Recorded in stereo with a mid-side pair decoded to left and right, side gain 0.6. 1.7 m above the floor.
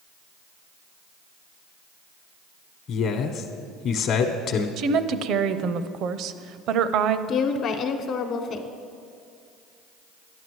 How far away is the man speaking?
About 1.0 m.